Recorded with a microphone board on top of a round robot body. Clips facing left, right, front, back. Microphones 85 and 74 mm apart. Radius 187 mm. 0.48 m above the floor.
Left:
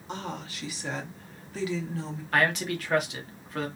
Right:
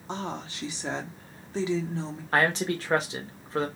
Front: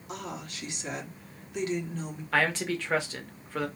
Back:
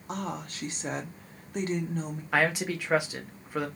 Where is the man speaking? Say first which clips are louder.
Right 1 dB, back 1 dB; 115° right, 1.0 m.